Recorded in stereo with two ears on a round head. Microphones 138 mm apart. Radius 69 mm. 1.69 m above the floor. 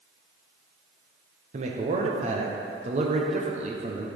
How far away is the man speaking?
About 0.7 m.